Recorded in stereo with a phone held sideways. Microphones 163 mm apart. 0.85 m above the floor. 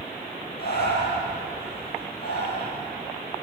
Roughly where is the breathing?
Left.